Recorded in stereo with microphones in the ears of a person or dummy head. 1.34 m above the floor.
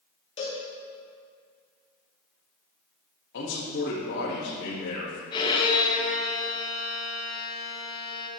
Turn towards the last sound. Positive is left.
turn(degrees=25)  # may be behind; listen again after turning